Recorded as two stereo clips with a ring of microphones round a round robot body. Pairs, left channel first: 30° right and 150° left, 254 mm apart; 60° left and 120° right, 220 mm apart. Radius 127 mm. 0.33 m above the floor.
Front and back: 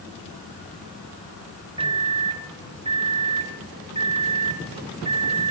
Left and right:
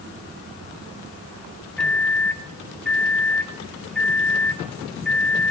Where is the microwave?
140° left, 0.7 m.